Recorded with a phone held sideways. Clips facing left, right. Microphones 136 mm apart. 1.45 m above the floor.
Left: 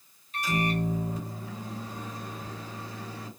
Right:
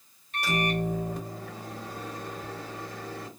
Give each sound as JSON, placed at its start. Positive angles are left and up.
{"t": 0.3, "sound": "a microwave", "side_deg": -75, "distance_m": 1.2}